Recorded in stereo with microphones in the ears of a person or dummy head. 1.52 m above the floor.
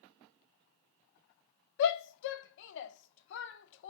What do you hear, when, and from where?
1.8 s a shout: 70° left (ahead or behind), 0.5 m